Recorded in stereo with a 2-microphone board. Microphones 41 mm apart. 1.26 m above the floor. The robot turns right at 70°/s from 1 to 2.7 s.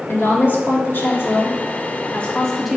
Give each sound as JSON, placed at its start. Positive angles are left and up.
{"t": 0.1, "sound": "a woman speaking", "azimuth_deg": 65, "distance_m": 2.0}